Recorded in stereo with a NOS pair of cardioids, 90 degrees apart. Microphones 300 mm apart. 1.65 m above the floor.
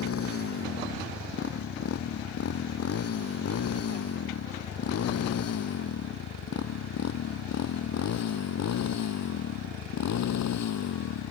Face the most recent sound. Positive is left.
turn(degrees=65)